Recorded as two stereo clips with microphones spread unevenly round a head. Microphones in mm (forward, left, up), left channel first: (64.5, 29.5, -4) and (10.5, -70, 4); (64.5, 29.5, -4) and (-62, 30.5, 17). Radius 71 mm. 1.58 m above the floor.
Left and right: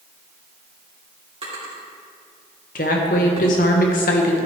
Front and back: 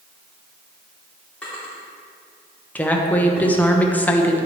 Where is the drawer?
85° right, 3 m.